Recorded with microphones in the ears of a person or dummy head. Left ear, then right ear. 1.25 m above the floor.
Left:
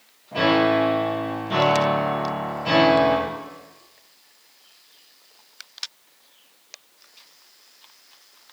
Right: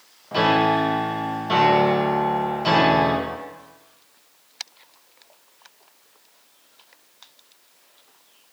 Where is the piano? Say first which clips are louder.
Even; 55° right (ahead or behind), 0.8 m.